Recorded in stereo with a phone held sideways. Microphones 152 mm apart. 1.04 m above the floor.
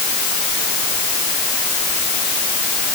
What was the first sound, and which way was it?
Only background noise.